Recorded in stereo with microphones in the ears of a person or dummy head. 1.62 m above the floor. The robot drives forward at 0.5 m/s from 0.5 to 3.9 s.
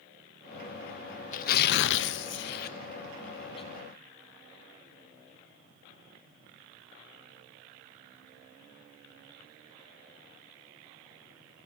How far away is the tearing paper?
About 0.6 m.